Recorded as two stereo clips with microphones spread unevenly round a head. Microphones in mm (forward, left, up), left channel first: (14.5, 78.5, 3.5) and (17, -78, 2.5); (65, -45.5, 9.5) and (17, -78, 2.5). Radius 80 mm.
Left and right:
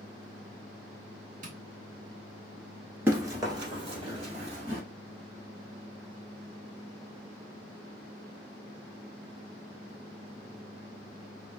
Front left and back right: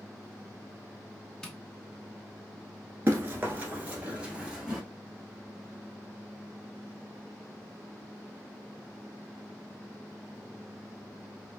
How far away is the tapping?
About 1.2 m.